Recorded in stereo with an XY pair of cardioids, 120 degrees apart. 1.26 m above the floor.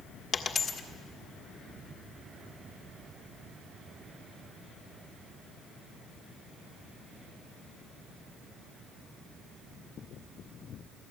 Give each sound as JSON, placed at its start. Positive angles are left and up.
{"t": 0.3, "sound": "a dropped coin", "azimuth_deg": 35, "distance_m": 1.6}